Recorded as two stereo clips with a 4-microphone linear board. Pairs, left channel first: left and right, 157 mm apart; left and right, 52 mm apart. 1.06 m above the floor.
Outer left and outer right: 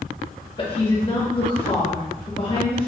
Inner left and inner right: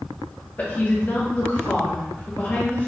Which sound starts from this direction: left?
A woman speaking, at 0.6 s.